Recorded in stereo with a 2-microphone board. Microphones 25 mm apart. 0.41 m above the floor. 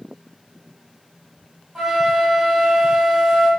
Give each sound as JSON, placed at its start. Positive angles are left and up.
{"t": 1.8, "sound": "a flute", "side_deg": -20, "distance_m": 1.5}